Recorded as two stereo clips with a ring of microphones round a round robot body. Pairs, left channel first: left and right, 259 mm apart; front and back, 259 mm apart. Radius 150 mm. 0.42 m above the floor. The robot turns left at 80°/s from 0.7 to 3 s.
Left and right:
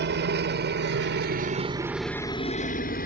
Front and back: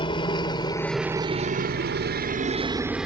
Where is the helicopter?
65° right; by 3.1 s 95° left.